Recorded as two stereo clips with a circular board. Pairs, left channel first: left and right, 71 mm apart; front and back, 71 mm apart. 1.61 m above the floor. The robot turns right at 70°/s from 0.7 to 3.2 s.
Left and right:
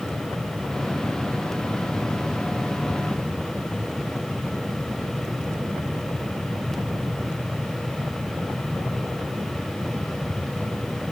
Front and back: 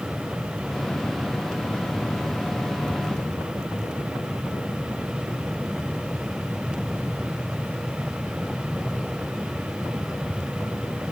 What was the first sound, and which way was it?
Only background noise.